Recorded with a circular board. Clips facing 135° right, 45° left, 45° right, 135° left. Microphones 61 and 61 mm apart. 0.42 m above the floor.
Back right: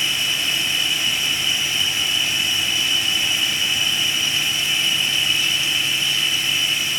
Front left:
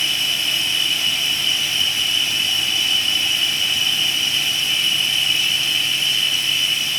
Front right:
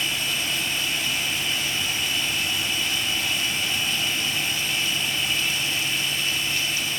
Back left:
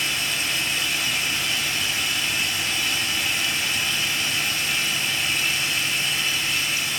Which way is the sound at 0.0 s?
150° left.